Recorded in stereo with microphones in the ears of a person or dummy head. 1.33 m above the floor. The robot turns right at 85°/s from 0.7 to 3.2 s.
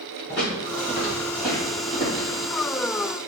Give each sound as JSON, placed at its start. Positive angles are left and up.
{"t": 0.3, "sound": "footsteps", "side_deg": 10, "distance_m": 1.3}